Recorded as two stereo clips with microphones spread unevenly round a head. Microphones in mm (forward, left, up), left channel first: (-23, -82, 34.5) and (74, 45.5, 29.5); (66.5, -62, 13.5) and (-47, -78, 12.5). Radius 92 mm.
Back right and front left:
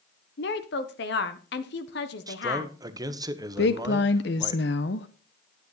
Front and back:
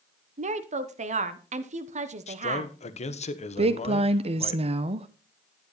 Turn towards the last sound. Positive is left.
turn(degrees=-150)